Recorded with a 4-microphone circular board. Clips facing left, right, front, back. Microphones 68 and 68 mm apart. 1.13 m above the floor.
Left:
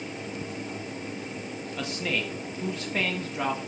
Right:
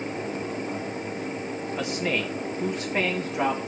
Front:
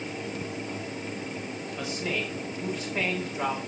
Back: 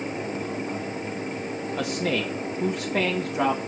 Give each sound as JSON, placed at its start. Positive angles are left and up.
{"t": 1.8, "sound": "a man speaking", "azimuth_deg": -165, "distance_m": 1.5}